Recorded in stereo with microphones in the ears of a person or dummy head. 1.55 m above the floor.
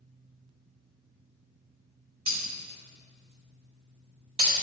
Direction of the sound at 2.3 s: 25° right (ahead or behind).